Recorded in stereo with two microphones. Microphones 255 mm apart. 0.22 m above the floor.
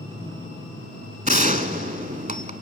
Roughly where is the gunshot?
Right.